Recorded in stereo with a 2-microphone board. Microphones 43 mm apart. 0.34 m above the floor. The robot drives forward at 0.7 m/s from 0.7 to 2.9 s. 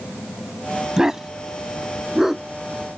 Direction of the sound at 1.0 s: 15° right (ahead or behind).